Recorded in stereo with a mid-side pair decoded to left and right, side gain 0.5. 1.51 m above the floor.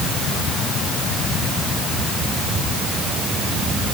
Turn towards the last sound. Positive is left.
No sound to turn to.